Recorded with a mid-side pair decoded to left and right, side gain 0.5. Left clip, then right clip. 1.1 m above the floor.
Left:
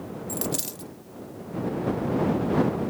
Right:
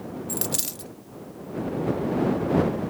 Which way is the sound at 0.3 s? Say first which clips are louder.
Right 1 dB; 25° right.